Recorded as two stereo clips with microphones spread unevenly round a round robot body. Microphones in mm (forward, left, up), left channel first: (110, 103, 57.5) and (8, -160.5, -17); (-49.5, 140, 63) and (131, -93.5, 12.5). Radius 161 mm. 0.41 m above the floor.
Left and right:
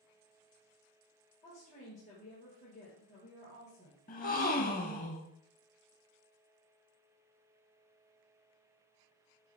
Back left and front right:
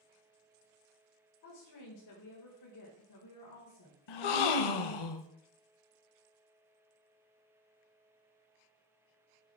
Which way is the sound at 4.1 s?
135° left.